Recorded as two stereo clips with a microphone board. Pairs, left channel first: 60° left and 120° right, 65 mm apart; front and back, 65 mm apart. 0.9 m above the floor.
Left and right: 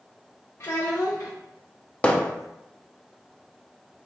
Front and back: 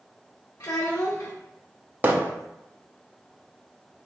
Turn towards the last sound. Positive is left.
turn(degrees=125)